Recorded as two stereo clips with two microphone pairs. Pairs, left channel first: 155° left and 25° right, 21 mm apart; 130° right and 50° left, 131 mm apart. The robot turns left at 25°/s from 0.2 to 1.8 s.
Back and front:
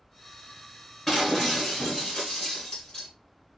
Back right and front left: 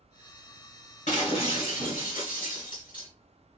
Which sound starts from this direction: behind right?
Breaking glass, at 1.1 s.